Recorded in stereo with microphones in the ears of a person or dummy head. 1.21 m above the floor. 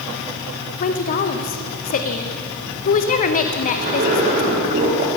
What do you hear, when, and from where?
0.8 s a woman speaking: 45° left (ahead or behind), 0.6 m
3.7 s a zipper: 40° right (ahead or behind), 1.3 m